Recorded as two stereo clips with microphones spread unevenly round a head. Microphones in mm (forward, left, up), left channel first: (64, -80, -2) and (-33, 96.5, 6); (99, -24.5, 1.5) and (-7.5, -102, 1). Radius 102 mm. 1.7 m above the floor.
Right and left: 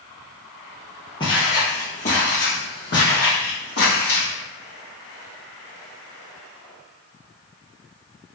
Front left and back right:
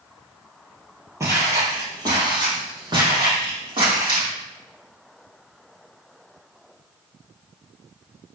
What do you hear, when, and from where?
1.2 s footsteps: 105° right, 1.8 m; by 4.3 s 95° right, 3.5 m